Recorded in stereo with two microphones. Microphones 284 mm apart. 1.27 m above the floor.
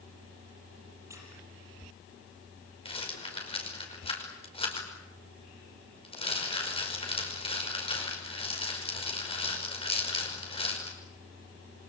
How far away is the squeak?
About 7 m.